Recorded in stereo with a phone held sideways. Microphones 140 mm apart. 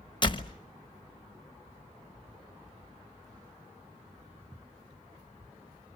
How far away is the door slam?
About 1.0 m.